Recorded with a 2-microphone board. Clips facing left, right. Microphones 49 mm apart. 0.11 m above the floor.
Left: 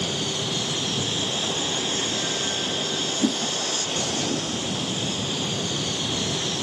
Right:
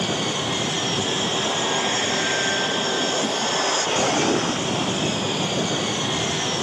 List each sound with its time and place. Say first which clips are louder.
0.0 s an aircraft: right 4 dB; 45° right (ahead or behind)
3.2 s a whoosh: even; 45° left (ahead or behind)